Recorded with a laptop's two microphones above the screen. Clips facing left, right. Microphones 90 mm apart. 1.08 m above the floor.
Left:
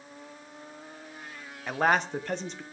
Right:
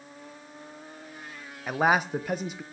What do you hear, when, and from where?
1.7 s a man speaking: 10° right (ahead or behind), 0.7 m